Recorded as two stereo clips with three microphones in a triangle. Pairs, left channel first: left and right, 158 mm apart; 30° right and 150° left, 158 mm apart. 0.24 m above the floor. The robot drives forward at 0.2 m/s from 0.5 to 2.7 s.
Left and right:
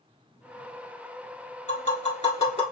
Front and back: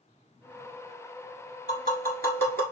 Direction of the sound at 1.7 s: 130° left.